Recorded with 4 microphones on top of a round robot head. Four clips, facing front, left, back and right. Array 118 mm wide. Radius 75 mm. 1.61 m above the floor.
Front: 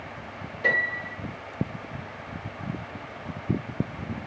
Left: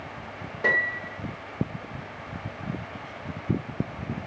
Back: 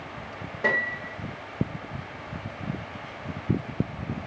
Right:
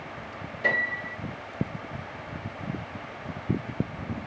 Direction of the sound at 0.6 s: 130° left.